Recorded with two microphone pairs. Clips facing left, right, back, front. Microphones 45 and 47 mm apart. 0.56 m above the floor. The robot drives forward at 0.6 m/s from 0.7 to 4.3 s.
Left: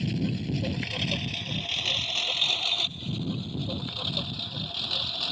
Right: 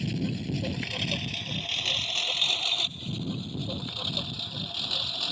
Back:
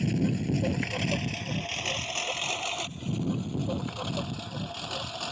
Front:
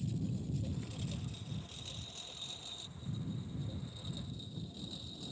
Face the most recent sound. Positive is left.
turn(degrees=180)